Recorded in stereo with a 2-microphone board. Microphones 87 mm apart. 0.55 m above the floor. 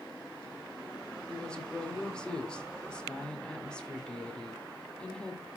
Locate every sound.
1.3 s a woman speaking: 10° left (ahead or behind), 1.8 m